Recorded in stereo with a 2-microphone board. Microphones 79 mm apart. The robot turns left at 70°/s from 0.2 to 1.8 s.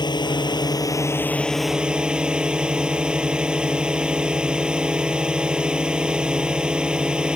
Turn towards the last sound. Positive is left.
turn(degrees=-10)